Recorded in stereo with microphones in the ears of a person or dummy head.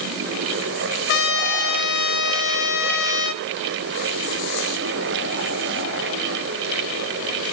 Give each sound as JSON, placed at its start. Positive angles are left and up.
{"t": 1.1, "sound": "a trumpet", "side_deg": 60, "distance_m": 0.8}